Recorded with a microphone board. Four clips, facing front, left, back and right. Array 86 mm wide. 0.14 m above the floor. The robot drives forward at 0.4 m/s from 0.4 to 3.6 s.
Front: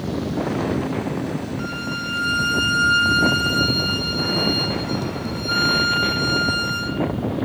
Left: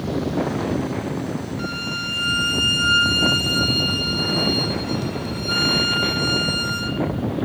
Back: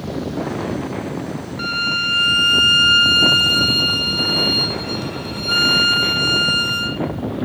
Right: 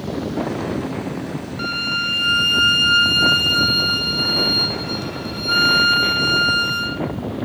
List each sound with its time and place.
1.6 s a violin: 155° right, 0.6 m; by 7.0 s 170° right, 1.4 m